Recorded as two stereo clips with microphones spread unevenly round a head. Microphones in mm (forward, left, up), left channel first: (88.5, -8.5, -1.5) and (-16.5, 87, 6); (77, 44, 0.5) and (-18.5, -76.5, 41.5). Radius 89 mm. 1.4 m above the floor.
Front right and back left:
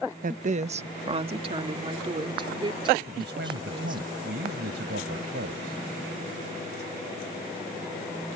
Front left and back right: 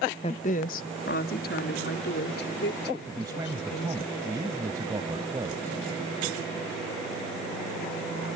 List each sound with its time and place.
0.2 s a woman speaking: 115° left; by 4.1 s 80° left
3.1 s a man speaking: 160° left